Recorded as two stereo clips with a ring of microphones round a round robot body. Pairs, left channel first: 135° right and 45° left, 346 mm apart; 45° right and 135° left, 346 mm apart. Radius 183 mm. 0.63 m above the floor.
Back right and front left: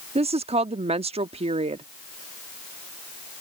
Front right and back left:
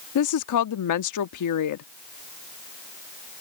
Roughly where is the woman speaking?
Ahead right.